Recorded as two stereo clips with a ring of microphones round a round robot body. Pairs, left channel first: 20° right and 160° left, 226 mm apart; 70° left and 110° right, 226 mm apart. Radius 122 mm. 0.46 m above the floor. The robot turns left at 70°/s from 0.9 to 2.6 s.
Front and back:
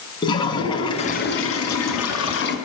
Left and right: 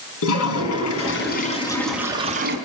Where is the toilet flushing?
50° left, 5.5 m; by 2.6 s 70° right, 5.5 m.